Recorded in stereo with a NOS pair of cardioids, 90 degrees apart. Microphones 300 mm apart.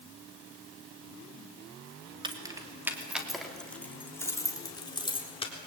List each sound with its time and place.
2.2 s keys jangling: 15° right, 2.5 m; by 5.5 s 20° left, 4 m